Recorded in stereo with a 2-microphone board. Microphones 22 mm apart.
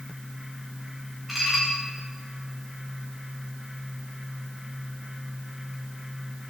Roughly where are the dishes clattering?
Centre.